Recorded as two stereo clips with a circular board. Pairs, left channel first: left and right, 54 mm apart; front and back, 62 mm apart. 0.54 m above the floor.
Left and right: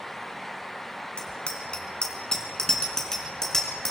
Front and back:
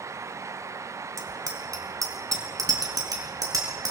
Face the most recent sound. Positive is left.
turn(degrees=170)